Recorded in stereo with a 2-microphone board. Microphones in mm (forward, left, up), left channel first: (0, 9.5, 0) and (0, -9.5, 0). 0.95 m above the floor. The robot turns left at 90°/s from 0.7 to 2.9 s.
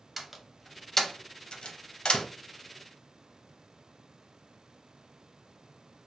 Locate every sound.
0.2 s a door slam: 5° right (ahead or behind), 0.6 m; by 2.3 s 40° left (ahead or behind), 0.6 m